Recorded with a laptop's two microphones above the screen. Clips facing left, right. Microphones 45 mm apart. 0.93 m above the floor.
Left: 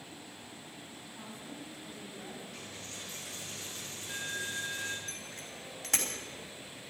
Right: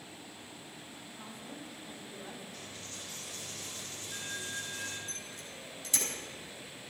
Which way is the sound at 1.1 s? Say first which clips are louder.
Left 1 dB; 30° left (ahead or behind).